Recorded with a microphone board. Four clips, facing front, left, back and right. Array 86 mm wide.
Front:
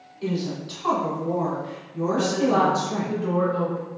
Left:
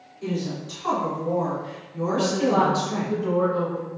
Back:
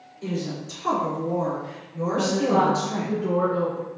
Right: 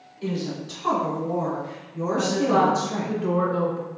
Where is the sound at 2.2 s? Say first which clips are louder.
Right 1 dB, even; 80° right, 1.4 m.